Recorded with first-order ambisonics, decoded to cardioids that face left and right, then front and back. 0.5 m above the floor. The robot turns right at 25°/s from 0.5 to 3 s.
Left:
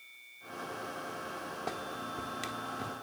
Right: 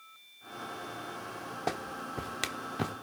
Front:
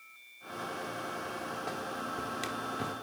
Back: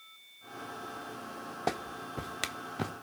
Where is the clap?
145° right, 1.1 m; by 2.9 s 110° right, 1.1 m.